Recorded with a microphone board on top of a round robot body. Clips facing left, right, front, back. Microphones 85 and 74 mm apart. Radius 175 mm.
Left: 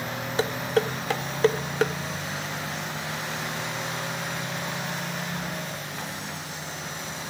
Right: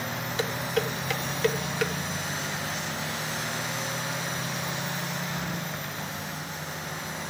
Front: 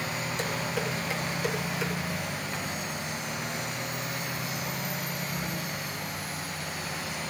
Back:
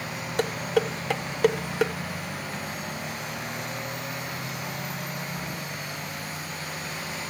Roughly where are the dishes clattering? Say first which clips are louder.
Left 4 dB, back 9 dB; behind left.